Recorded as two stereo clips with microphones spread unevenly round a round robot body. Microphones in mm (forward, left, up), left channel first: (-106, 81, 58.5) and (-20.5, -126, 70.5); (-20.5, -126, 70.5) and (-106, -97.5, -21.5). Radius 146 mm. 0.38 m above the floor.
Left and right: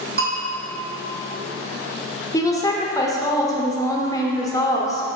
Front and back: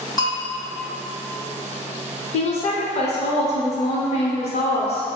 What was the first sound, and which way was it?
A bell, 105° right.